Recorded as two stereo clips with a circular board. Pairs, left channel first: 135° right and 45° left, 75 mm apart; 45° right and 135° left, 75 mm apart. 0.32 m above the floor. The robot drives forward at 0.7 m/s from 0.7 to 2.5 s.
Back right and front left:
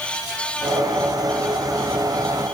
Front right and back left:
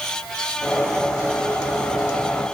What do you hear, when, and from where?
Only background noise.